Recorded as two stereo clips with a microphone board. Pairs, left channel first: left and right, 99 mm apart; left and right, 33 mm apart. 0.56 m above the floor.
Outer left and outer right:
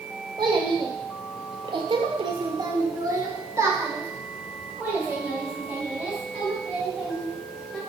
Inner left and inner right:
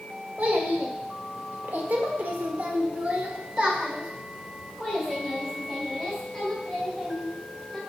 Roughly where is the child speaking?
Right.